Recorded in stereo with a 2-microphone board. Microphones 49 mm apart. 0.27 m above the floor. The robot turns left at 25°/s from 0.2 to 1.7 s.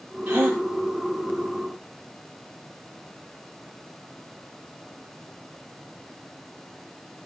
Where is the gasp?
50° right (ahead or behind), 6 m; by 0.6 s 40° right (ahead or behind), 6 m.